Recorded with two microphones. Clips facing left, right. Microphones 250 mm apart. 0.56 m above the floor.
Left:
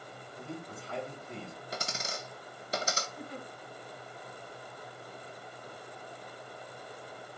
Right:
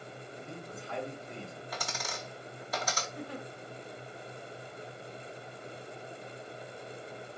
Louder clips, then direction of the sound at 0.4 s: Left 4 dB; 35° left (ahead or behind).